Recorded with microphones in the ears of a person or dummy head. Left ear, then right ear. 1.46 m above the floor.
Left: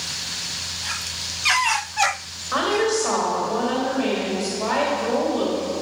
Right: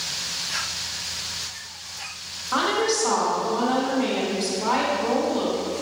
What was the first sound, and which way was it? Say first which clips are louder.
A woman speaking: left 1 dB; 40° left (ahead or behind).